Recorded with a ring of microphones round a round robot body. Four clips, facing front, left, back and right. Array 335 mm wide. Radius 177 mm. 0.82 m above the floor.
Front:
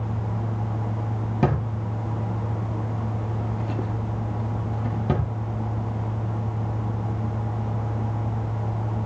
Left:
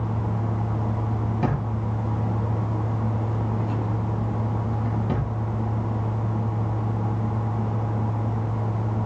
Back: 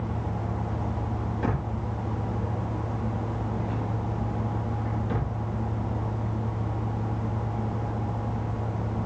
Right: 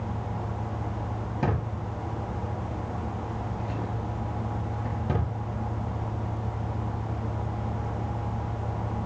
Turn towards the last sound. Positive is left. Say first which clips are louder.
# left 1 dB, front 7 dB
turn(degrees=0)